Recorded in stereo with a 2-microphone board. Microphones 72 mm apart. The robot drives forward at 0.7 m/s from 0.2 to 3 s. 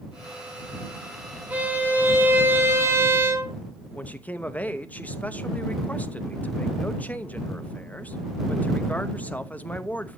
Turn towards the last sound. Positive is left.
turn(degrees=20)  # may be behind; listen again after turning